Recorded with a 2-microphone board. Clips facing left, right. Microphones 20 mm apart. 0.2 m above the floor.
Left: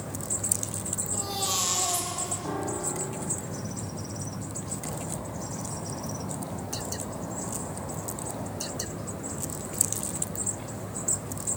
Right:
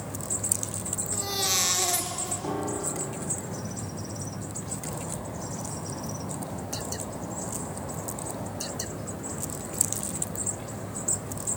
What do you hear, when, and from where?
1.1 s a baby crying: 60° right (ahead or behind), 3 m
2.4 s a piano: 65° right (ahead or behind), 4 m